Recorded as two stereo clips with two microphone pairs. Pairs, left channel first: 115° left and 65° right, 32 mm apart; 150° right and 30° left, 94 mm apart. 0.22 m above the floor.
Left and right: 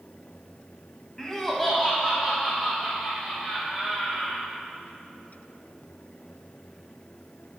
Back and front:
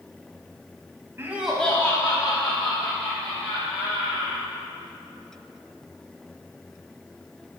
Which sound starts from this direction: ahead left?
Laughter, at 1.2 s.